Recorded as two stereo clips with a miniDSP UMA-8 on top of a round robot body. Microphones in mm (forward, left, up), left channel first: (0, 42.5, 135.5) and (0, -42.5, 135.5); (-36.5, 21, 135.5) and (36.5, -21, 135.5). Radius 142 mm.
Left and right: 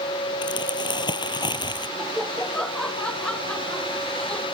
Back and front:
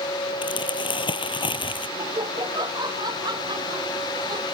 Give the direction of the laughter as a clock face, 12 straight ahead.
12 o'clock.